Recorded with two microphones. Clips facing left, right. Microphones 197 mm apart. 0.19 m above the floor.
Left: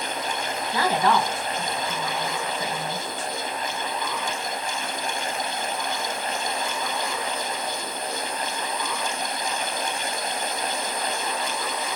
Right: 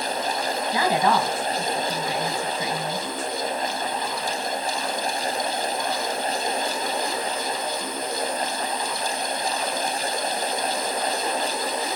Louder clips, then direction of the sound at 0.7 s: Even; 20° right (ahead or behind).